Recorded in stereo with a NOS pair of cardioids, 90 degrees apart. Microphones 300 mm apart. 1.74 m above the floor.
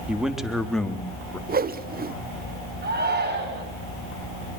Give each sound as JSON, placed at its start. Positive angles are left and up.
{"t": 0.1, "sound": "a man speaking", "azimuth_deg": -5, "distance_m": 3.0}
{"t": 1.5, "sound": "a whoosh", "azimuth_deg": -30, "distance_m": 1.2}
{"t": 2.8, "sound": "a shout", "azimuth_deg": -30, "distance_m": 10.0}